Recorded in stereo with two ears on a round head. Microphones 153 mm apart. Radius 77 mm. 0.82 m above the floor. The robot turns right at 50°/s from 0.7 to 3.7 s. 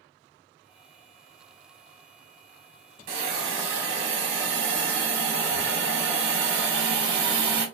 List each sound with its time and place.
3.1 s a hiss: 120° right, 1.1 m; by 7.7 s 90° right, 1.1 m